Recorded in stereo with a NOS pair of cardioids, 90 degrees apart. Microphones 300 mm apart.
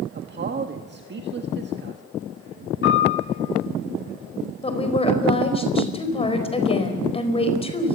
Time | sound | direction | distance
0.1 | a man speaking | 35° right | 1.6 m
2.8 | a piano | 40° left | 8 m
4.6 | a woman speaking | 20° left | 4.5 m